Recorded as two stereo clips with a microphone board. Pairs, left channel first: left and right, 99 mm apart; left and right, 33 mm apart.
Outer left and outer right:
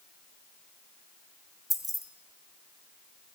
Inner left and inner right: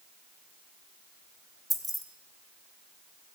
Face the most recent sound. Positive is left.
turn(degrees=0)  # may be behind; listen again after turning